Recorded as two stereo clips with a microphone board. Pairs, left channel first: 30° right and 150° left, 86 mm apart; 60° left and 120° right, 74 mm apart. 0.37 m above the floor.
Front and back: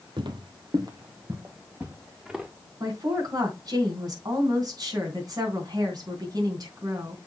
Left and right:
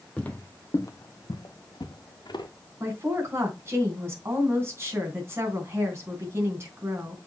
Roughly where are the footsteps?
Behind left.